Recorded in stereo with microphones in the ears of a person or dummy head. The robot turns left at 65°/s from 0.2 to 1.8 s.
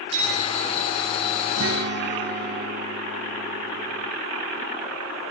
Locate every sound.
0.1 s a clink: 40° right, 8 m; by 2.6 s 145° right, 8 m
1.6 s a guitar: 60° right (ahead or behind), 1.1 m; by 4.1 s 45° right (ahead or behind), 1.1 m